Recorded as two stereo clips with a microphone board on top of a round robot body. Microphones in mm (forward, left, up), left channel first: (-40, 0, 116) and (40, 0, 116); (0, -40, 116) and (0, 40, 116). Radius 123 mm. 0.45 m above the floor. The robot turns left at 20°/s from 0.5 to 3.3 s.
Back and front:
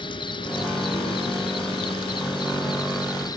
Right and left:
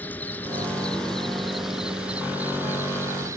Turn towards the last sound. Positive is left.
turn(degrees=145)